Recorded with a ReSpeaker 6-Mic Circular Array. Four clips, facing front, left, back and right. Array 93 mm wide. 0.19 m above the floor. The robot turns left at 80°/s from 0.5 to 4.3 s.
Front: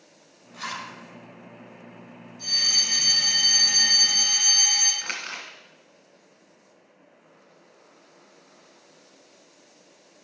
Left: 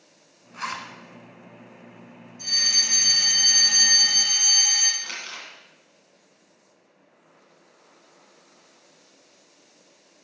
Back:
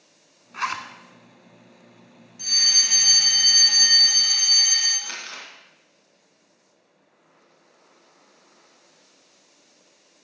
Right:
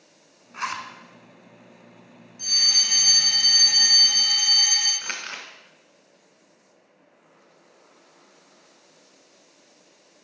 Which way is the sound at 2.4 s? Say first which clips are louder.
Left 1 dB, back 2 dB; 155° right.